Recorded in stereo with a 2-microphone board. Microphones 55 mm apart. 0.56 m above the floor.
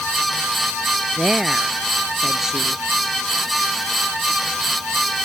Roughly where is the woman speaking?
Centre.